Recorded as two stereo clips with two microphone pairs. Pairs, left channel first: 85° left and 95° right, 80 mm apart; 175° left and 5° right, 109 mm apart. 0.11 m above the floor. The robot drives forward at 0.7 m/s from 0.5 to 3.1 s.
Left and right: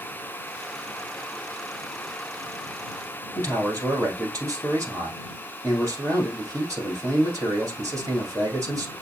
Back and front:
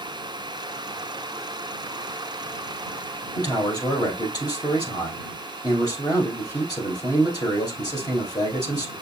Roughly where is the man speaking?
Behind right.